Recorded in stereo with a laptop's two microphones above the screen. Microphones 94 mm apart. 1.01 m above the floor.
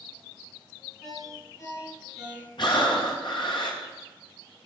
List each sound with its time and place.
1.0 s a ringtone: 30° left (ahead or behind), 4 m
2.6 s breathing: 55° left (ahead or behind), 1.3 m